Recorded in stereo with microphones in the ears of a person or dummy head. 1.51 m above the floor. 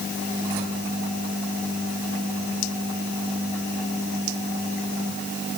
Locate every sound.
Only background noise.